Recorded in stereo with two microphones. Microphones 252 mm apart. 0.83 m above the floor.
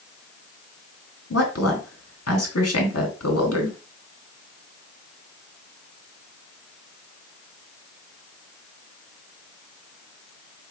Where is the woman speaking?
75° left (ahead or behind), 1.6 m.